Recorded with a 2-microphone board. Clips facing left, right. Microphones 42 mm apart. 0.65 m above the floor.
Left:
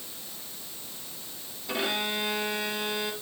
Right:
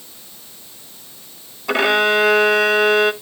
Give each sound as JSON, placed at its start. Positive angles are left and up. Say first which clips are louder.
{"t": 1.7, "sound": "a violin", "louder": "right 14 dB", "side_deg": -70, "distance_m": 0.8}